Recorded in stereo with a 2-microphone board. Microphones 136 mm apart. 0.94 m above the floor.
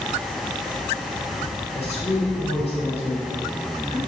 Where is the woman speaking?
55° left (ahead or behind), 3.5 m.